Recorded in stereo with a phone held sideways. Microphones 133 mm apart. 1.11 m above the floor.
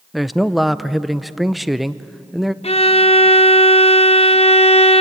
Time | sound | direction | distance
0.1 | a man speaking | centre (ahead or behind) | 0.6 m
2.6 | a violin | 50° left (ahead or behind) | 0.8 m